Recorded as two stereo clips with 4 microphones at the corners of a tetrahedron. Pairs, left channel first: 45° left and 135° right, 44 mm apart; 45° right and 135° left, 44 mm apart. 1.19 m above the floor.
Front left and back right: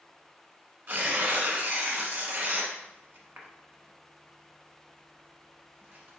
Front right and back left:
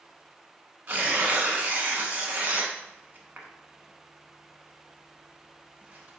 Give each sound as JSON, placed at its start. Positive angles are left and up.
{"t": 0.9, "sound": "tearing paper", "azimuth_deg": 180, "distance_m": 1.0}